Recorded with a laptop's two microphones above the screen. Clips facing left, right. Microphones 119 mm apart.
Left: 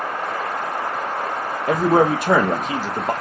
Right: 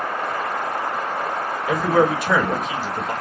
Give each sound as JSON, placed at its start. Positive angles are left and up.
{"t": 1.7, "sound": "a man speaking", "side_deg": 50, "distance_m": 0.6}